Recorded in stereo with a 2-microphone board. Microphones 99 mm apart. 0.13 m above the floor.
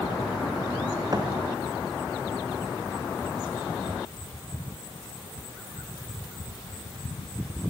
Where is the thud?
40° right (ahead or behind), 4 m.